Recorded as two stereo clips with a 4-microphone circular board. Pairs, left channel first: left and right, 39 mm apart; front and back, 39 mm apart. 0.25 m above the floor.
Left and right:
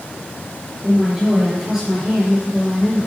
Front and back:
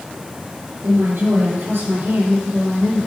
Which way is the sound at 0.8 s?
165° right.